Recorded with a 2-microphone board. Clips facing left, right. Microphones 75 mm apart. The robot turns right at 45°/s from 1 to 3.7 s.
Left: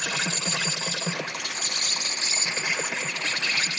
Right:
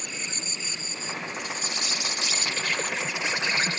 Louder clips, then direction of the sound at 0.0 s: Left 7 dB; 90° left.